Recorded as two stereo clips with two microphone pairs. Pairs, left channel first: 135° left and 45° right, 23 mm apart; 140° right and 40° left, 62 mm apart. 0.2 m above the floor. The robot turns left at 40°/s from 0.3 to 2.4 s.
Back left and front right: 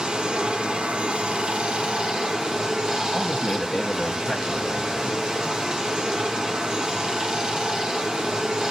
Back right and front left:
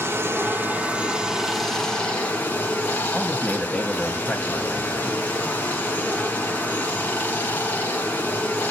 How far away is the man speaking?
About 1.0 m.